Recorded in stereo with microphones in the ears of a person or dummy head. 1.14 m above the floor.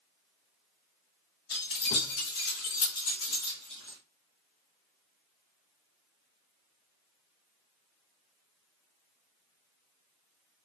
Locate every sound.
1.5 s keys jangling: 50° left (ahead or behind), 1.4 m; by 4.0 s 70° left (ahead or behind), 1.7 m